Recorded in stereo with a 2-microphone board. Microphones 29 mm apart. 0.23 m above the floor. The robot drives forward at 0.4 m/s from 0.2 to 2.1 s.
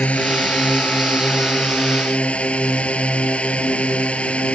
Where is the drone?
50° left (ahead or behind); by 4.5 s 45° left (ahead or behind).